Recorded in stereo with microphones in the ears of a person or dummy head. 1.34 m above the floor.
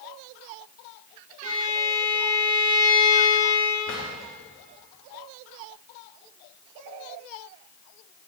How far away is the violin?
About 2 m.